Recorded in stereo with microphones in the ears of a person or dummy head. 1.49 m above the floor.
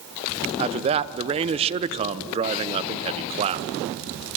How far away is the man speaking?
About 0.8 m.